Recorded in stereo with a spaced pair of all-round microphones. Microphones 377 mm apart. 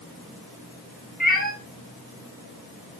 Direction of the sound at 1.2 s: 25° left (ahead or behind).